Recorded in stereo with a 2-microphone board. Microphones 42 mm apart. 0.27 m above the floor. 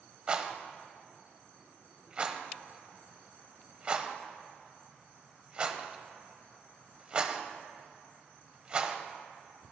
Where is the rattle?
25° right (ahead or behind), 0.8 m.